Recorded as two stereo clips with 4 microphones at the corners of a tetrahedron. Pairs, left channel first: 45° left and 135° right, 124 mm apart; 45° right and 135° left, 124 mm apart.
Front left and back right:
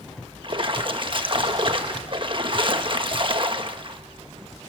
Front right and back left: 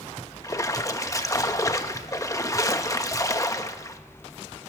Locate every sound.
0.4 s a splash: 100° right, 1.1 m